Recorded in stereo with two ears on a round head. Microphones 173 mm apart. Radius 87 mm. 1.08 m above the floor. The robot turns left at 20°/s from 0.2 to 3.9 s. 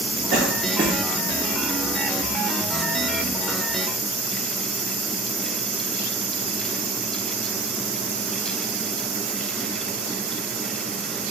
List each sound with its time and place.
0.3 s a cough: 30° right (ahead or behind), 0.9 m; by 1.0 s 20° right (ahead or behind), 0.9 m